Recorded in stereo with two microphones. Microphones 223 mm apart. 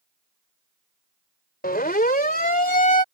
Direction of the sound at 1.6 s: 45° left (ahead or behind).